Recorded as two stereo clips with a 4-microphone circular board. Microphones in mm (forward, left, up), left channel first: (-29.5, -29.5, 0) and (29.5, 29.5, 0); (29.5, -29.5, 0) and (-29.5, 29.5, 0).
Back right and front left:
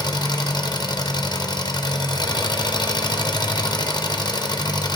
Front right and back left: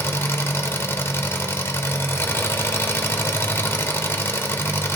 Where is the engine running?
105° right, 0.8 m.